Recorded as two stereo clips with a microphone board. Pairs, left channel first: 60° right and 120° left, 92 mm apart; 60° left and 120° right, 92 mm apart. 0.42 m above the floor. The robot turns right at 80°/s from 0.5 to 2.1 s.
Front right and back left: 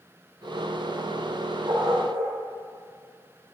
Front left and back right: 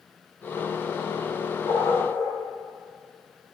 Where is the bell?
No bell in this recording.